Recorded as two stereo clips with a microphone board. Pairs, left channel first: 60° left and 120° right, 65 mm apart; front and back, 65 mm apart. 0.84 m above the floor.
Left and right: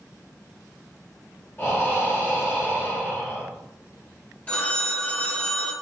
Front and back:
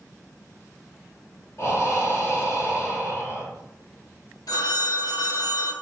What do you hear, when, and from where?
1.6 s breathing: 25° left, 1.5 m
4.5 s a phone ringing: 5° right, 0.7 m